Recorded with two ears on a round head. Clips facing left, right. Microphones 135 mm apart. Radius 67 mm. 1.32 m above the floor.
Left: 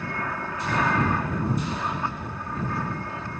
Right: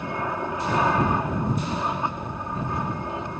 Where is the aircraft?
15° right (ahead or behind).